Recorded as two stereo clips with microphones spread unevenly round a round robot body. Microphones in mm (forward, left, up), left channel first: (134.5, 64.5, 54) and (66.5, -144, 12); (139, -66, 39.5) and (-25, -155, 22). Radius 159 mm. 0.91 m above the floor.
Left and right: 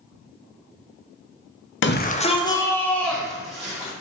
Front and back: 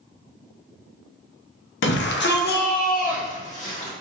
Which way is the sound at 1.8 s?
35° left.